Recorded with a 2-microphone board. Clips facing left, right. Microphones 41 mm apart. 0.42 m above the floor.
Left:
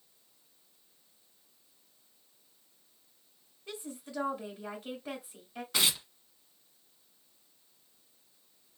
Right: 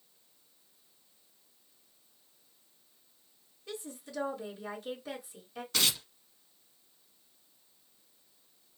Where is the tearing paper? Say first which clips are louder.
Left 1 dB; 15° left (ahead or behind), 0.8 m.